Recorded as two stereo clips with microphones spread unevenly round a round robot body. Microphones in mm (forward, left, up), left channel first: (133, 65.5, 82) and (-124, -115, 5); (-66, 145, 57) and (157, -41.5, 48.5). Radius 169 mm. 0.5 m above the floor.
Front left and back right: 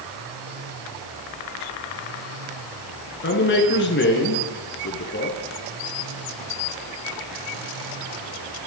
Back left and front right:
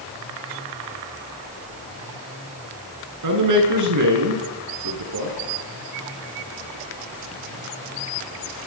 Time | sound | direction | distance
3.2 | a man speaking | 20° right | 8 m